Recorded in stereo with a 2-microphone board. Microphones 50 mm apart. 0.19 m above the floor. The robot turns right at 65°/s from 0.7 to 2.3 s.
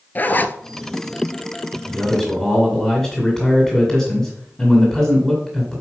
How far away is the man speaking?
About 1.9 m.